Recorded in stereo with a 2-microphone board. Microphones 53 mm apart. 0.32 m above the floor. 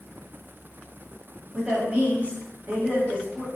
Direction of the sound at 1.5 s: 25° right (ahead or behind).